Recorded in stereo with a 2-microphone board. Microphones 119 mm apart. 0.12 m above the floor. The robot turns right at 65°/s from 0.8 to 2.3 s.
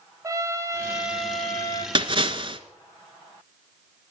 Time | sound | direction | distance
0.2 | a trumpet | 30° right | 2.5 m
1.9 | a splash | 45° right (ahead or behind) | 1.5 m